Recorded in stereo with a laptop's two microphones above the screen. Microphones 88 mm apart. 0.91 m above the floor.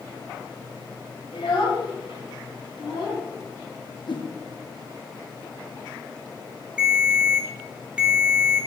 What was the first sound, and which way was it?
A child speaking, 85° left.